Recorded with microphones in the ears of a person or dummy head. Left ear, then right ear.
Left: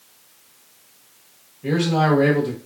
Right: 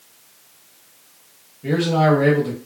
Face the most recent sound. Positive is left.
turn(degrees=5)  # may be behind; listen again after turning